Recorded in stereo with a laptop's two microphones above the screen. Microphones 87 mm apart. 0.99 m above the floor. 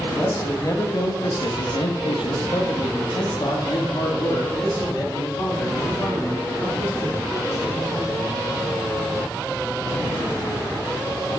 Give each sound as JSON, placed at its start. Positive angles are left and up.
{"t": 0.1, "sound": "a man speaking", "side_deg": 30, "distance_m": 1.3}